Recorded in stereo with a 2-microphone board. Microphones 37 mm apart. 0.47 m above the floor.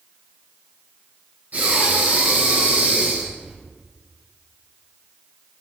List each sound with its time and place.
1.5 s breathing: 50° right (ahead or behind), 2.5 m